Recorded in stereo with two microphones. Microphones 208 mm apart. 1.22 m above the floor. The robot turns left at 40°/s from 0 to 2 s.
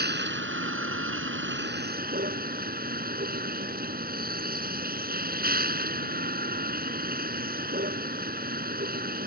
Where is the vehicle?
55° right; by 9.3 s 135° right.